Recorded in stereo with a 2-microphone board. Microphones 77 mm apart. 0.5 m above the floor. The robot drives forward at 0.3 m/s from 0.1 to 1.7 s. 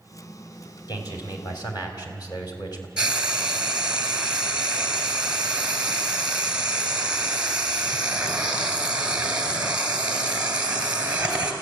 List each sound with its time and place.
0.9 s a man speaking: 60° left (ahead or behind), 3 m; by 2.9 s 65° left (ahead or behind), 3 m
3.0 s frying: 15° right (ahead or behind), 2.5 m